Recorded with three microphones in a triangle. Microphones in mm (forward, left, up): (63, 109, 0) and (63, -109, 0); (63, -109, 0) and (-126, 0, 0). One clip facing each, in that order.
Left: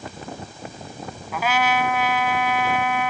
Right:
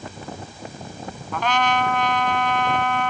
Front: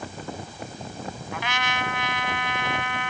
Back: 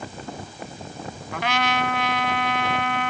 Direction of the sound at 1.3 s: 170° left.